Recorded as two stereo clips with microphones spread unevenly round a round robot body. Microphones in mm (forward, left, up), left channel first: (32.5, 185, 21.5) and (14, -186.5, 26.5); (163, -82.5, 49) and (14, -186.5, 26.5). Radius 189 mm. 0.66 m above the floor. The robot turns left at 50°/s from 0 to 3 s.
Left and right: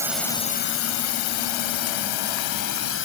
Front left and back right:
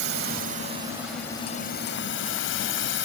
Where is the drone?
175° right; by 3.1 s 30° left.